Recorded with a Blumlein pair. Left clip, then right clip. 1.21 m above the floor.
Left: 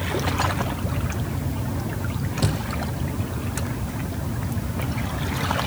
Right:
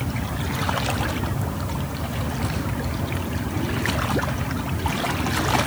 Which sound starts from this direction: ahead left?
A thud, at 2.4 s.